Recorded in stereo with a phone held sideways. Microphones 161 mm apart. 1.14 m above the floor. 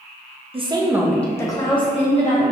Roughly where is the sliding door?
No sliding door in this recording.